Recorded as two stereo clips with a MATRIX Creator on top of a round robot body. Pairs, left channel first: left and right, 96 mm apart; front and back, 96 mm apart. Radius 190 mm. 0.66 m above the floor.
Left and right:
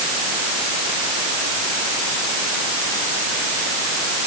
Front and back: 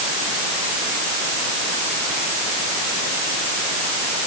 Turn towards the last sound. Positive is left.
No sound to turn to.